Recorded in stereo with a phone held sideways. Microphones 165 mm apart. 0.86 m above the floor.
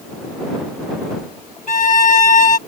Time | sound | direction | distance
1.7 | a violin | 50° left (ahead or behind) | ?